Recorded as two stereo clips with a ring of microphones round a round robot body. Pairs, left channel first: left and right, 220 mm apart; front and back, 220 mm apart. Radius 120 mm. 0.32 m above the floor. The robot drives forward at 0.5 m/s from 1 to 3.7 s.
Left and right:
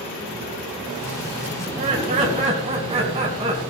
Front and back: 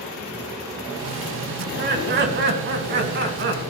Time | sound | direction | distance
1.6 | laughter | 145° right | 3 m